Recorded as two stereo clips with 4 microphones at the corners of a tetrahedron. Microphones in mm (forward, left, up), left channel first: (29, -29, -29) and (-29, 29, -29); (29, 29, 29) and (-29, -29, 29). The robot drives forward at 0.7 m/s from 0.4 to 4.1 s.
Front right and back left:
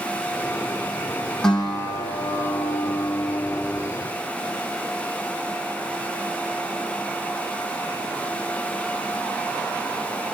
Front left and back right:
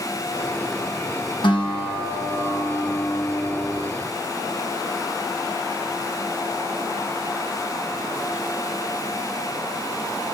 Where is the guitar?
40° left, 7 m; by 3.9 s 50° left, 6 m.